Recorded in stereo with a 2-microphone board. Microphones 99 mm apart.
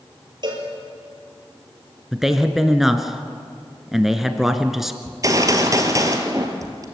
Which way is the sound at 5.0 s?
35° right (ahead or behind).